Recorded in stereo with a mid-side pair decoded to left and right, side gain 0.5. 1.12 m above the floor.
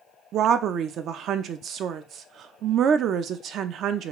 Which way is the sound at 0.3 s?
65° right.